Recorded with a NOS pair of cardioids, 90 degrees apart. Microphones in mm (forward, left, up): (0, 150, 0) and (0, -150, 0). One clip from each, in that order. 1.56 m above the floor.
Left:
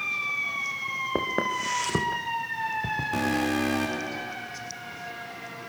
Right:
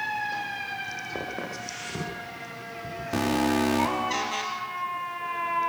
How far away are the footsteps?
About 5.5 m.